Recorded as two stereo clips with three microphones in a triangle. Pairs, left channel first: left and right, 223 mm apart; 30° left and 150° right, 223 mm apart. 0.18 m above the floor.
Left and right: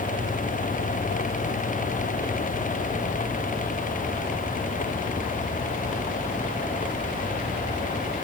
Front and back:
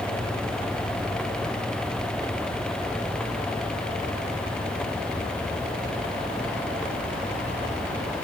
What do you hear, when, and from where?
Only background noise.